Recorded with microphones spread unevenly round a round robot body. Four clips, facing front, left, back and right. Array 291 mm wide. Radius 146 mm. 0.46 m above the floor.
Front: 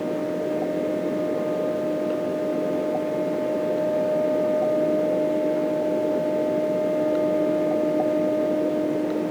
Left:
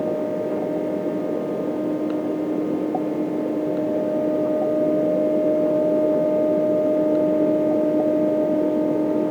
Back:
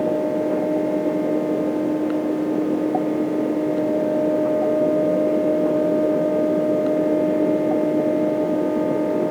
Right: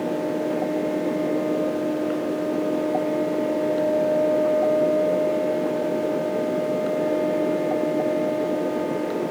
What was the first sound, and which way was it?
Only background noise.